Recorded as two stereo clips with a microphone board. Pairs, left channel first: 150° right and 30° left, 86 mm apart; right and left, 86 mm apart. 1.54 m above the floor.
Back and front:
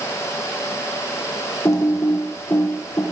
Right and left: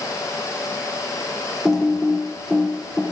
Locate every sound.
1.6 s typing on a keyboard: 175° left, 0.6 m